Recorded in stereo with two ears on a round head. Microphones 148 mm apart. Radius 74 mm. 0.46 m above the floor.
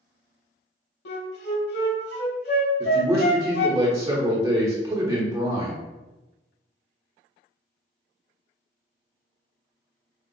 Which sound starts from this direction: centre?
A man speaking, at 2.8 s.